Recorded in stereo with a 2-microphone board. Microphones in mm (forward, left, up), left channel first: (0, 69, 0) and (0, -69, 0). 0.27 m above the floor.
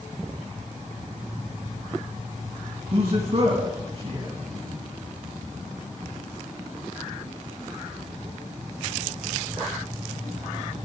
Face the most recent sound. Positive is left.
turn(degrees=-50)  # may be behind; listen again after turning